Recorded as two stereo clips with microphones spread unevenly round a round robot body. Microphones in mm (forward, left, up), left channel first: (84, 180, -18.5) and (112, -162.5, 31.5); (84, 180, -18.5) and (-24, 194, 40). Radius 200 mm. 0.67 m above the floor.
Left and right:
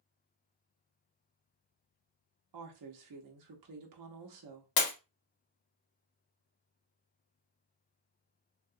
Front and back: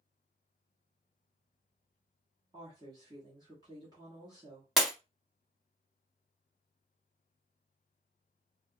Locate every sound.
2.5 s a woman speaking: 105° right, 0.8 m
4.8 s breaking glass: 105° left, 0.9 m